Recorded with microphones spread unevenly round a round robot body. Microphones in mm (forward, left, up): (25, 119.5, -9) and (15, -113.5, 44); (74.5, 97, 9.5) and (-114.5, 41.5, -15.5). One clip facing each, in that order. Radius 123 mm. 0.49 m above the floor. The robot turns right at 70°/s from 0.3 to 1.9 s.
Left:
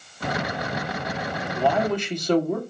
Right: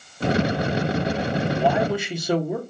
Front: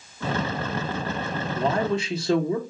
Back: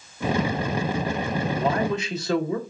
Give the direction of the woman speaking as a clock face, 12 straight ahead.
12 o'clock.